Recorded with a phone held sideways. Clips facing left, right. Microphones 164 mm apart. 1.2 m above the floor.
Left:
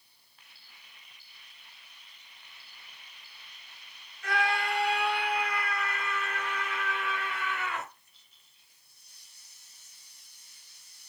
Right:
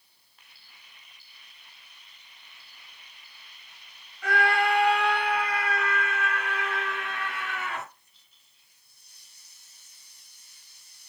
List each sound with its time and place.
4.2 s a scream: 90° right, 7 m; by 7.9 s 85° right, 9.5 m